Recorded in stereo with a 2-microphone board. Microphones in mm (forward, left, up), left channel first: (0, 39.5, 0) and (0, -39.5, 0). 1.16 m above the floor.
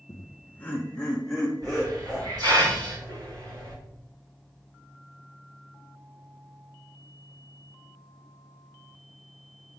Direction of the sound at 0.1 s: 40° left (ahead or behind).